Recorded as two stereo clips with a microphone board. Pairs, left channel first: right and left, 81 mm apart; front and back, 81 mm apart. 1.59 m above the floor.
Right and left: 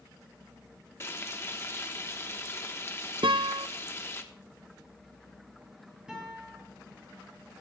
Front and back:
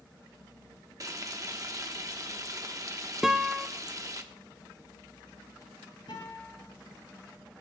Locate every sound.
1.0 s frying: 145° right, 1.1 m
3.2 s a guitar: 95° left, 0.7 m
6.1 s a guitar: 10° left, 6.5 m